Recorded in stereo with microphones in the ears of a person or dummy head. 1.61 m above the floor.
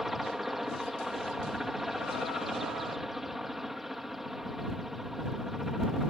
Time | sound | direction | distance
0.0 | a helicopter | 5° right (ahead or behind) | ?